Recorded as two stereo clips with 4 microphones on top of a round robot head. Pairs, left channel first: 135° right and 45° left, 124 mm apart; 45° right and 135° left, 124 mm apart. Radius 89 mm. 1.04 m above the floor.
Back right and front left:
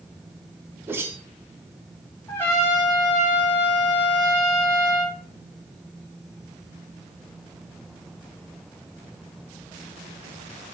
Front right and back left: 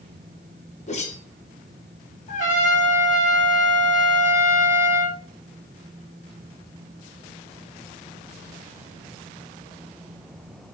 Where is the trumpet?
60° right, 4 m.